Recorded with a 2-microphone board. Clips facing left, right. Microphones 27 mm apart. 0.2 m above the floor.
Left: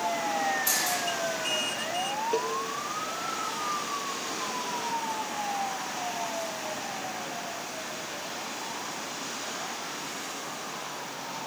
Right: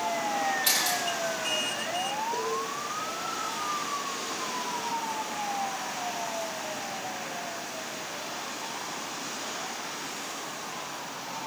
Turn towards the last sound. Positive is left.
turn(degrees=50)  # may be behind; listen again after turning